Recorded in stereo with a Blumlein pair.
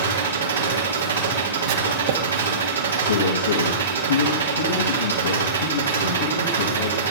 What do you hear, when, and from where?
0.0 s an engine running: 70° right, 3 m
1.7 s writing: 55° right, 1.5 m
3.0 s a man speaking: 70° left, 2.5 m